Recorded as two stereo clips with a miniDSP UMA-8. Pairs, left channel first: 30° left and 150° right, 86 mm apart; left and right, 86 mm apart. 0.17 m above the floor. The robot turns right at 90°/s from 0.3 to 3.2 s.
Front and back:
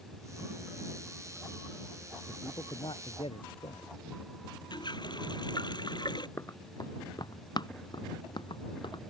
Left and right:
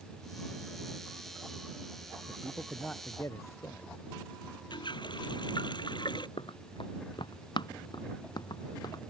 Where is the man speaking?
45° right; by 3.9 s 35° left.